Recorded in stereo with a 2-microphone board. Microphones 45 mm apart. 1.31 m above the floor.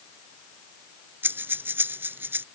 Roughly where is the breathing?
Right.